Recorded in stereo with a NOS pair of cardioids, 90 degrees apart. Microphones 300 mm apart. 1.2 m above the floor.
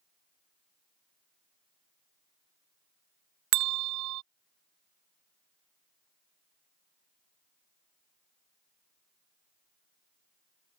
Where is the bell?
70° right.